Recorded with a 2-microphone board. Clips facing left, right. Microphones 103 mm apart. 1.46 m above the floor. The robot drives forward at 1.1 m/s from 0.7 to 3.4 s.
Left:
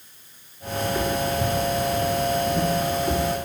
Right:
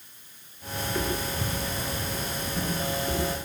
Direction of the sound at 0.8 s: Centre (ahead or behind).